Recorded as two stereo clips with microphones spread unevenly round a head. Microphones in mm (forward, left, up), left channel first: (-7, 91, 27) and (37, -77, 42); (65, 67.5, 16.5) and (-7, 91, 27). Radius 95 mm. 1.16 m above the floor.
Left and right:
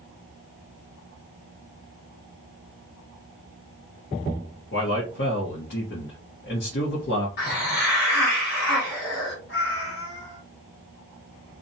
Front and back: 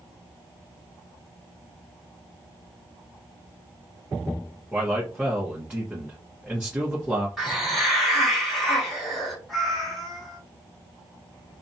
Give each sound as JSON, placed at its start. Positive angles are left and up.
{"t": 4.7, "sound": "a man speaking", "azimuth_deg": 85, "distance_m": 1.0}
{"t": 7.4, "sound": "a hiss", "azimuth_deg": 80, "distance_m": 1.6}
{"t": 9.5, "sound": "a cat meowing", "azimuth_deg": 75, "distance_m": 1.2}